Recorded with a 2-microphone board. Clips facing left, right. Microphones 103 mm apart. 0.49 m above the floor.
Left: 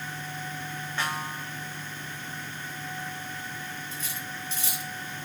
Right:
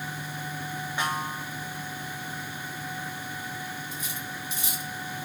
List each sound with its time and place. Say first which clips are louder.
1.0 s a snare drum: right 2 dB; 15° right (ahead or behind), 2.5 m
3.9 s cutlery clinking: right 1 dB; 15° right (ahead or behind), 2.5 m